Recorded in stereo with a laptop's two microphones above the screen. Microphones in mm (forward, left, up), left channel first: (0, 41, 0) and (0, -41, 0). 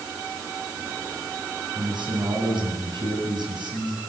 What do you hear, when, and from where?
1.8 s a man speaking: 70° right (ahead or behind), 7.5 m